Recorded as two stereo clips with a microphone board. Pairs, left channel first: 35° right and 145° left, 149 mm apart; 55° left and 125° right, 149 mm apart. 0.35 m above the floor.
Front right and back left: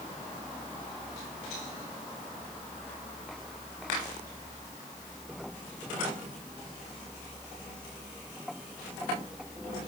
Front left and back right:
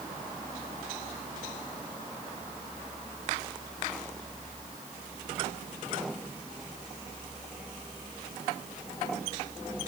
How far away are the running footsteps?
No running footsteps in this recording.